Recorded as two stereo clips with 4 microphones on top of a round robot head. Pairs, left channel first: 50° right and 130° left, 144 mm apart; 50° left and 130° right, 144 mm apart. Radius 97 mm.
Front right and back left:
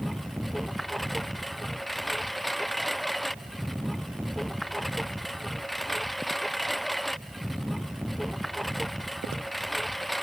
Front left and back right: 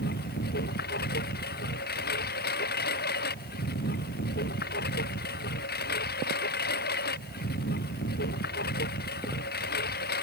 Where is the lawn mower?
40° left.